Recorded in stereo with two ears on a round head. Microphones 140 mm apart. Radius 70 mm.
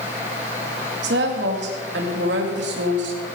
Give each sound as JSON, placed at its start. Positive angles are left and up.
{"t": 1.0, "sound": "a woman speaking", "side_deg": -85, "distance_m": 4.0}